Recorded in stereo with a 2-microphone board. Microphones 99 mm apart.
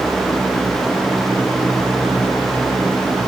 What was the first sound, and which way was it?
Only background noise.